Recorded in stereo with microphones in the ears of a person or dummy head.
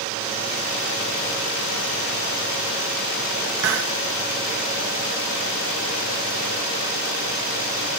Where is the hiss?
65° right (ahead or behind), 1.0 m.